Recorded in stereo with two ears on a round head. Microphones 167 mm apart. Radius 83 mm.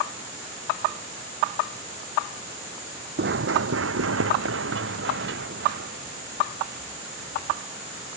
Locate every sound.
3.2 s running footsteps: 55° right (ahead or behind); by 7.6 s 50° right (ahead or behind)